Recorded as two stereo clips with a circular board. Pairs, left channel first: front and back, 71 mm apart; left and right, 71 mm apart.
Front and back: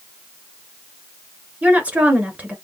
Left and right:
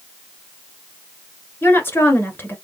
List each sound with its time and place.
1.6 s a woman speaking: 125° left, 1.3 m